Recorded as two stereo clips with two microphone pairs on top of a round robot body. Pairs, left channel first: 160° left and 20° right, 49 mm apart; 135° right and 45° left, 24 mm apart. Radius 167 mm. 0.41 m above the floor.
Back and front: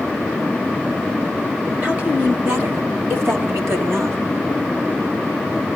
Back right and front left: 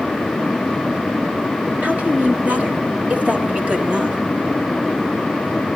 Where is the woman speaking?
20° left, 5 m; by 4.2 s 5° right, 4 m.